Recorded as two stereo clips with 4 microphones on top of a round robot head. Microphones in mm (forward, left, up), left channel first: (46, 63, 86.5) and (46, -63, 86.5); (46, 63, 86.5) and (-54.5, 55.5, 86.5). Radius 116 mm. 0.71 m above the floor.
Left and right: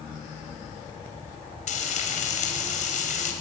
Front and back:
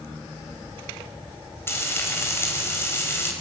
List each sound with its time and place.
1.7 s frying: 70° left, 4.5 m